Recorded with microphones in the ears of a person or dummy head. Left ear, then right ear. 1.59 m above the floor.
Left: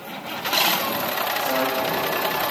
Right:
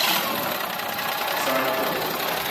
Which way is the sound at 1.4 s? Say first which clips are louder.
Right 1 dB; 75° right (ahead or behind).